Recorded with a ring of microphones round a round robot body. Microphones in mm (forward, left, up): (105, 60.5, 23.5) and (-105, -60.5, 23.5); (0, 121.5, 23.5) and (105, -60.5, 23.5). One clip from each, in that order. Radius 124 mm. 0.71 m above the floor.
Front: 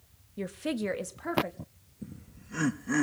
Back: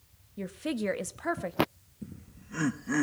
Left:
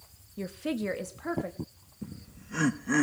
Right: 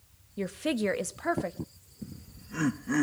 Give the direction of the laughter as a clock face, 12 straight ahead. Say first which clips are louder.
Even, left 1 dB; 8 o'clock.